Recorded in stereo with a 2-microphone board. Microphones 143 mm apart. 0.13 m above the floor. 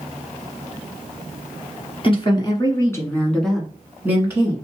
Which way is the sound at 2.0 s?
35° left (ahead or behind).